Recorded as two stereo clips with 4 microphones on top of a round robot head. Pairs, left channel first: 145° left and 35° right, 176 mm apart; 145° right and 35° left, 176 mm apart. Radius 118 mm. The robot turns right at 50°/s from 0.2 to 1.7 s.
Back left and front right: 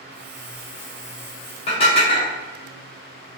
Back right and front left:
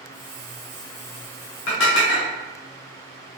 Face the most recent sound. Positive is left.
turn(degrees=-160)